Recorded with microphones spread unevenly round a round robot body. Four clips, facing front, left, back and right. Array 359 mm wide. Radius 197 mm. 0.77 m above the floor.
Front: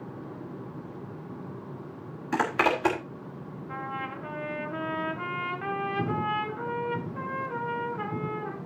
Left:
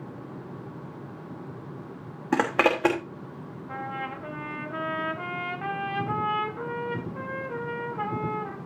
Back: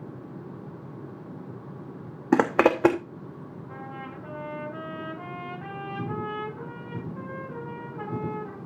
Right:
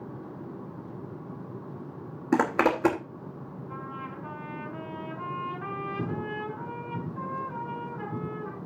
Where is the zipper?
170° right, 1.0 m.